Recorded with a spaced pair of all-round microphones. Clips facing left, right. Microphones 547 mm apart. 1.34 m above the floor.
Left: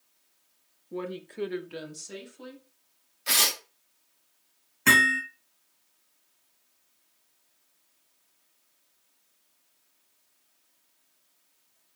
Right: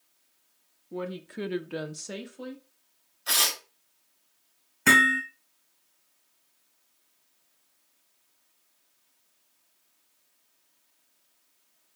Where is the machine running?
No machine running in this recording.